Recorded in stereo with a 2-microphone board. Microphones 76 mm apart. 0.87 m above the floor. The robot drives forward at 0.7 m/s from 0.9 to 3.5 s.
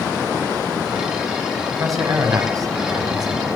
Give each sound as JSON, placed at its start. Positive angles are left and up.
{"t": 1.7, "sound": "a man speaking", "side_deg": -50, "distance_m": 6.5}